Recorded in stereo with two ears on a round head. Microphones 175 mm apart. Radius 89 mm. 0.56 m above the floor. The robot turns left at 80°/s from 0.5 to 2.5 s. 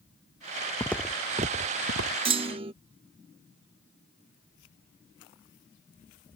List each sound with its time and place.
0.8 s footsteps: 15° left (ahead or behind); by 2.1 s 80° right
2.2 s a clunk: 30° right (ahead or behind)